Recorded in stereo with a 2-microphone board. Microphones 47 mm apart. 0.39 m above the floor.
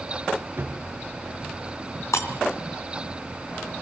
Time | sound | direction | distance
0.6 | a drawer | 50° right (ahead or behind) | 4.5 m
2.1 | breaking glass | 80° left | 3 m